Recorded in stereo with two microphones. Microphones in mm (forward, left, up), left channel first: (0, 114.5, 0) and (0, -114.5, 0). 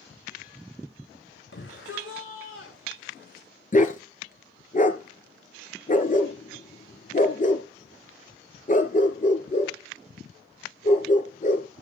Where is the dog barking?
35° left (ahead or behind), 2.5 m.